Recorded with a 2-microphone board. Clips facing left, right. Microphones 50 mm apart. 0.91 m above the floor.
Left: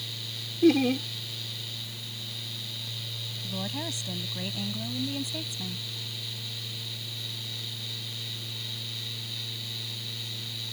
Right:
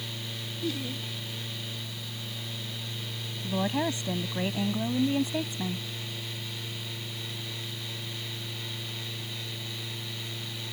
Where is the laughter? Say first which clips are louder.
Left 13 dB; 65° left (ahead or behind).